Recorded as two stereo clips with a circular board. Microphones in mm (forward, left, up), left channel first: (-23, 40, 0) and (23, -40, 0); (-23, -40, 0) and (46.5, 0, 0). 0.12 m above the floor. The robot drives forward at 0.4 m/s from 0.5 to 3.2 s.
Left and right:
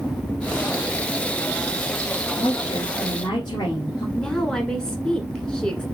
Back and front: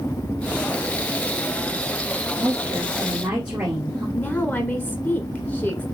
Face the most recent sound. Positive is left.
turn(degrees=-170)